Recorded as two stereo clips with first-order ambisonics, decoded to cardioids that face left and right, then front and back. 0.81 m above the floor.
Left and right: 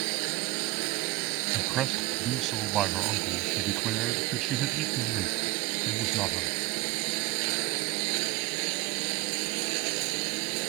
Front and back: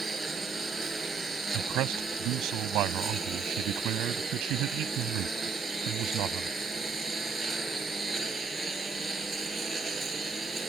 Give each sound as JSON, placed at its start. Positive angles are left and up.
{"t": 0.0, "sound": "a lawn mower", "azimuth_deg": -100}
{"t": 1.5, "sound": "a man speaking", "azimuth_deg": -140}